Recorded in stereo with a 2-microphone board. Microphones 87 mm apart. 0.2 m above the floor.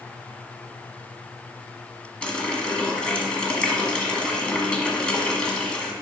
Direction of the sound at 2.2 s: 10° left (ahead or behind).